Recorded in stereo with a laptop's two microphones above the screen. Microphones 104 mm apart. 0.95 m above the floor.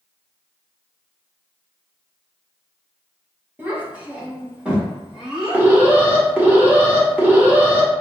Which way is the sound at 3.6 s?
20° right (ahead or behind).